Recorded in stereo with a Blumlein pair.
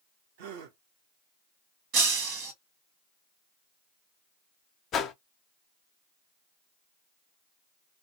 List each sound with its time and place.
0.4 s a gasp: 50° right, 0.9 m
1.9 s breaking glass: 40° right, 1.2 m
4.9 s a whoosh: 25° left, 0.6 m